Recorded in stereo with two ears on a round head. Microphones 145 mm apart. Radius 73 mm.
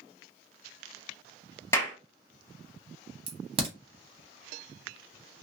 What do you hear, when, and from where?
1.7 s a clap: 15° left (ahead or behind), 1.0 m
3.3 s a crack: 30° right (ahead or behind), 0.9 m